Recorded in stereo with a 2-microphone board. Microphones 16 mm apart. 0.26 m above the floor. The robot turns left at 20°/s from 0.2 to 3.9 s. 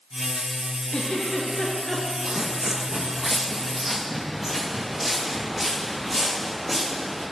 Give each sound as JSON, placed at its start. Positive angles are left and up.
{"t": 0.9, "sound": "a giggle", "side_deg": 75, "distance_m": 1.8}
{"t": 2.2, "sound": "footsteps", "side_deg": -45, "distance_m": 0.5}